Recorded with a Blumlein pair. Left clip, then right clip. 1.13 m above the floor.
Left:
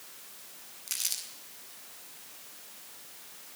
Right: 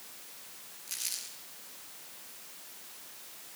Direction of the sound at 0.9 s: 70° left.